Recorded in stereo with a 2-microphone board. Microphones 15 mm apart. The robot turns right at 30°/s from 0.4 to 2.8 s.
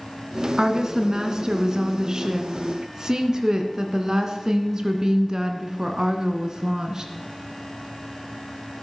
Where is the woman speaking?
130° right, 2 m; by 7.1 s 65° right, 2 m.